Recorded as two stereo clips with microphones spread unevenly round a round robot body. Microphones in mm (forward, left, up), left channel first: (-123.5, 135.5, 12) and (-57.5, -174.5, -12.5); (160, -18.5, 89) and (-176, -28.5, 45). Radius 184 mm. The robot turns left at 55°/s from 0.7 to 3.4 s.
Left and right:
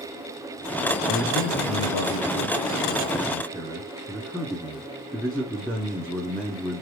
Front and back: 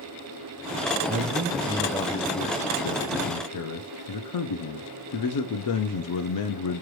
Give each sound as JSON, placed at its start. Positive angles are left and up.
{"t": 1.1, "sound": "a man speaking", "azimuth_deg": 135, "distance_m": 0.8}